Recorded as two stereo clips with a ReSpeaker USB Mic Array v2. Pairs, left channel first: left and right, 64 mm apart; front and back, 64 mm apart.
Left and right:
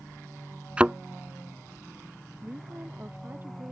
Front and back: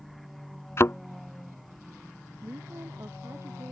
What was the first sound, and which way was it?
A thud, 25° right.